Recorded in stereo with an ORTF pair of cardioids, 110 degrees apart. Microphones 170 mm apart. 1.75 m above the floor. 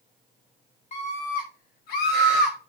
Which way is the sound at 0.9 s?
40° left.